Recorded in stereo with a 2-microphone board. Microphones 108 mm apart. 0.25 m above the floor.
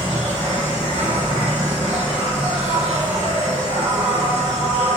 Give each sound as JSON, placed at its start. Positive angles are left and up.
{"t": 0.0, "sound": "an insect", "side_deg": -80, "distance_m": 2.0}